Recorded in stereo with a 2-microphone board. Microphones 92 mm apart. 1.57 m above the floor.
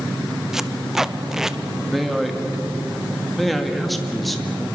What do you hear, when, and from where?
0.5 s tape being pulled: 5° right (ahead or behind), 0.8 m
1.9 s a man speaking: centre (ahead or behind), 2.5 m